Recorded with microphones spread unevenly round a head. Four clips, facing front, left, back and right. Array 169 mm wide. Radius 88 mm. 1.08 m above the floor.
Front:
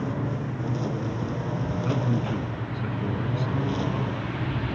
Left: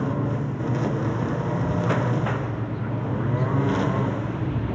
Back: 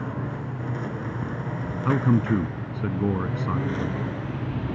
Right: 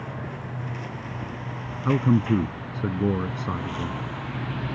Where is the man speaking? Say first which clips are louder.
Right 3 dB, back 7 dB; 130° right.